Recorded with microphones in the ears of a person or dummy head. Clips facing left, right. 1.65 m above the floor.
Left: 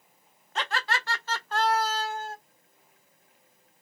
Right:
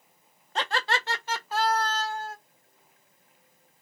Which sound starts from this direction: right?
Laughter, at 0.6 s.